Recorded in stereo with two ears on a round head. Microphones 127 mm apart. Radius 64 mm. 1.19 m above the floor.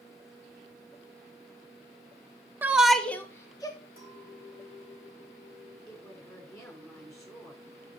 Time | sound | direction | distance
2.6 | a shout | 15° right (ahead or behind) | 0.6 m
4.0 | a clink | 70° left (ahead or behind) | 3.5 m
5.9 | a woman speaking | 20° left (ahead or behind) | 4 m